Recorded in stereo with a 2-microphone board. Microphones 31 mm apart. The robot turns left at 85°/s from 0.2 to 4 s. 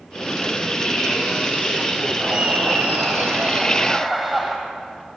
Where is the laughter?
30° right, 7.5 m; by 4.5 s straight behind, 7.5 m.